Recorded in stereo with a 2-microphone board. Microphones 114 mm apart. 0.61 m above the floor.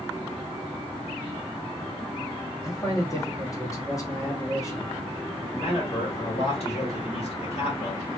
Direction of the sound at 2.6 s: 25° left (ahead or behind).